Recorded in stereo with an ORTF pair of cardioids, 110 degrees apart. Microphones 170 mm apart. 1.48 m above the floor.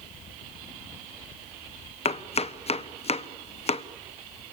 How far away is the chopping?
About 1.2 m.